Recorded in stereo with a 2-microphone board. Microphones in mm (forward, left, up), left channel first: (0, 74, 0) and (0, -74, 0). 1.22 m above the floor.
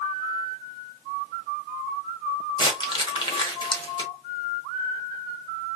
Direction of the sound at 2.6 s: 30° left (ahead or behind).